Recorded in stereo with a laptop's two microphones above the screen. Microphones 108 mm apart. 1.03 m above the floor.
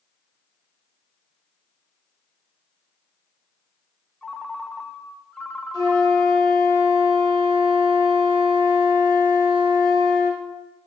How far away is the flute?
About 3.5 m.